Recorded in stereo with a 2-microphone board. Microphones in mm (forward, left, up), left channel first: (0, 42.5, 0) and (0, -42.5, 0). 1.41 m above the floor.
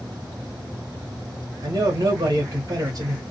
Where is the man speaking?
45° right (ahead or behind), 1.0 m.